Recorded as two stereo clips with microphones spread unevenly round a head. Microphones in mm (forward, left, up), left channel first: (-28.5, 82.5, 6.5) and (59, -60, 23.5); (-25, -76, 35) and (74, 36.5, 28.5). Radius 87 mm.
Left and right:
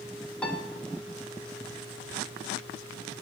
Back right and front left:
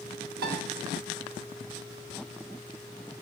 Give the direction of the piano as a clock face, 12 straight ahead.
11 o'clock.